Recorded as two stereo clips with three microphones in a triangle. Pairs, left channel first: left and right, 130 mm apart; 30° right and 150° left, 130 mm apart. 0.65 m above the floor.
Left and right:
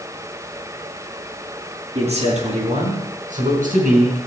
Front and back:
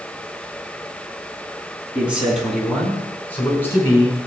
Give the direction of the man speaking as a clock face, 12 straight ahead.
4 o'clock.